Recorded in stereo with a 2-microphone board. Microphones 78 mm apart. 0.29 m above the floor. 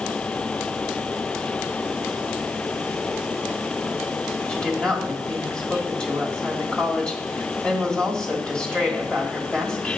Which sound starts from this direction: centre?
A woman speaking, at 4.5 s.